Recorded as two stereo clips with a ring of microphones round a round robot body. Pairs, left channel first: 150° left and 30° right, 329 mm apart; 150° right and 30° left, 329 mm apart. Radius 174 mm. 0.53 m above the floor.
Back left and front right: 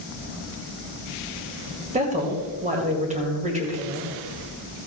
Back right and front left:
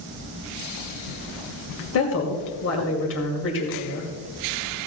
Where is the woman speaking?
100° right, 2 m.